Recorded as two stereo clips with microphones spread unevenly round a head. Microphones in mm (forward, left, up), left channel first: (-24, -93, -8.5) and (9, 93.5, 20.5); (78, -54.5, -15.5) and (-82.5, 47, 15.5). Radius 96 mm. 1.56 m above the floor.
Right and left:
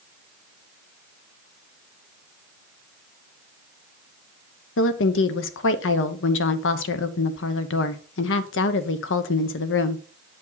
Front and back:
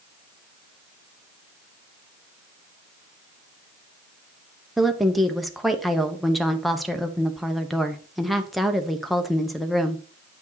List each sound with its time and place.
4.8 s a woman speaking: 120° right, 0.9 m